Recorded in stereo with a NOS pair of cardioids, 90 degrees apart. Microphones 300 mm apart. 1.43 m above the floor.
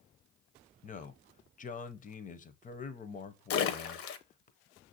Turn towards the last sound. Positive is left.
turn(degrees=50)